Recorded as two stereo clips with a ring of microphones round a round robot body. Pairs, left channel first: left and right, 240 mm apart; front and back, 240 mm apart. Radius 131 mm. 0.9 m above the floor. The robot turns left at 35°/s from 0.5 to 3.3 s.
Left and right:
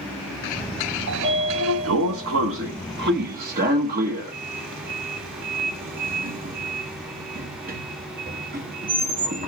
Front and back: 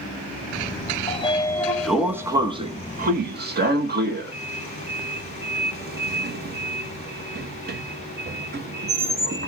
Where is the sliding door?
60° right, 1.2 m; by 9.5 s 140° right, 1.2 m.